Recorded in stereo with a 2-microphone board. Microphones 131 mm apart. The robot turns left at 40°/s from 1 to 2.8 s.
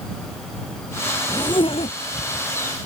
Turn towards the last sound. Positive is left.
turn(degrees=90)